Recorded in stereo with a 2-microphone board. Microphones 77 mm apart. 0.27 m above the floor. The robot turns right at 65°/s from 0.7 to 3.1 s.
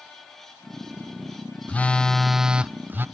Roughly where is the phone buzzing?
Behind left.